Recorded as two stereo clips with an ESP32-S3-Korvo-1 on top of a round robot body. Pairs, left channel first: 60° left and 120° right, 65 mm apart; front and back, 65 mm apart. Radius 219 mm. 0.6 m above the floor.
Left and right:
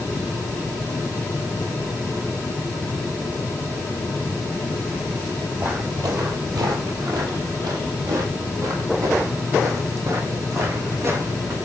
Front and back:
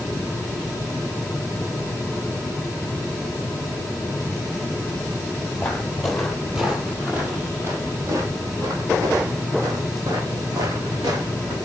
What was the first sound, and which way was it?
Footsteps, 70° right.